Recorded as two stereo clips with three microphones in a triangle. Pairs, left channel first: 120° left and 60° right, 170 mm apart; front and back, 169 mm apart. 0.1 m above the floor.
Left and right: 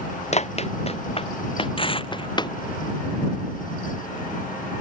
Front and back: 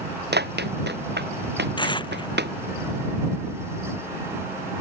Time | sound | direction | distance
0.3 | running footsteps | 170° left | ?
1.8 | tearing paper | 65° left | ?